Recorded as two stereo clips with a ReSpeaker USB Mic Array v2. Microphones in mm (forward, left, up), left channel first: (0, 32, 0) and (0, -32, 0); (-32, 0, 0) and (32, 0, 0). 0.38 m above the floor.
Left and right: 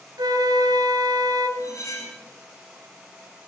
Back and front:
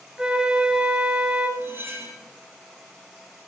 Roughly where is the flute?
Right.